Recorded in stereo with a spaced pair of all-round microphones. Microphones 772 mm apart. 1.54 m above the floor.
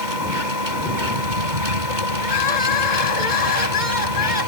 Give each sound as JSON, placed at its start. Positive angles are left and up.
{"t": 0.0, "sound": "a machine running", "side_deg": -75}
{"t": 2.2, "sound": "crying", "side_deg": 75}